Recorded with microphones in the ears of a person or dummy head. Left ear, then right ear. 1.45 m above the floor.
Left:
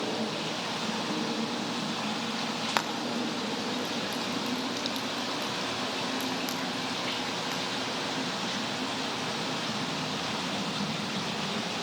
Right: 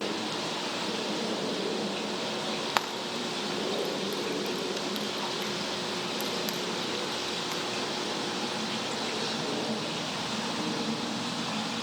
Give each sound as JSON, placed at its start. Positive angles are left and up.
{"t": 2.8, "sound": "frying", "side_deg": -10, "distance_m": 1.2}